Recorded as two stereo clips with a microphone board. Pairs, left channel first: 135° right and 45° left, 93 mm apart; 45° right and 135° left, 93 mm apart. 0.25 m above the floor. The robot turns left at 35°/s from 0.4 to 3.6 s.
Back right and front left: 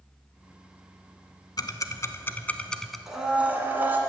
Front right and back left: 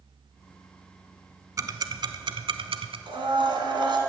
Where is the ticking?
175° right, 0.6 m; by 3.0 s 135° left, 0.6 m.